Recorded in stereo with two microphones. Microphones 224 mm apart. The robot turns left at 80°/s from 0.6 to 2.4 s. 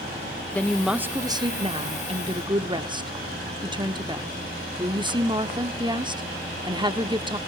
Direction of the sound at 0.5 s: 5° left (ahead or behind).